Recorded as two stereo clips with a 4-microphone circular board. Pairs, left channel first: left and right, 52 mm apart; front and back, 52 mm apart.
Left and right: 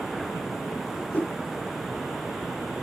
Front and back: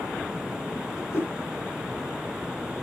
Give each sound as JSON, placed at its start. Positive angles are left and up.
{"t": 0.9, "sound": "a whoosh", "azimuth_deg": 30, "distance_m": 7.0}